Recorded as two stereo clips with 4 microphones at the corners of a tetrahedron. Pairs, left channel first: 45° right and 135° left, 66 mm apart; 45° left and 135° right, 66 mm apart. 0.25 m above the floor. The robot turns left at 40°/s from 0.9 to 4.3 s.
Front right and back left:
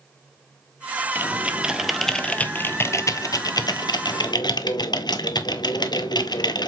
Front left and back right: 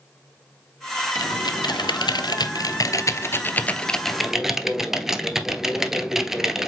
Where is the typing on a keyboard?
75° left, 1.0 m; by 6.7 s 50° right, 1.0 m.